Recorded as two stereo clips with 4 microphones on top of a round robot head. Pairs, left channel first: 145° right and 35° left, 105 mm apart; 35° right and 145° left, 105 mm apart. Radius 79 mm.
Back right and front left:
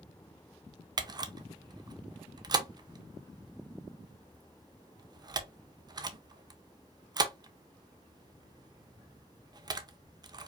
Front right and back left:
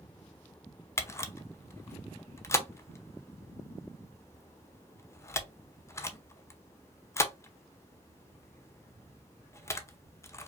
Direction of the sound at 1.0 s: 15° left.